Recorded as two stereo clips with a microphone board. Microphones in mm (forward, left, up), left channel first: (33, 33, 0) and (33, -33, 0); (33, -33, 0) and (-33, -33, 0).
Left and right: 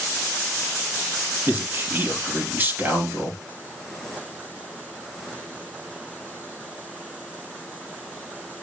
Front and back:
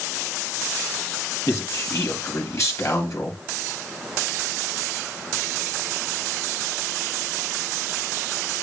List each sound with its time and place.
1.5 s a man speaking: 35° right, 3.5 m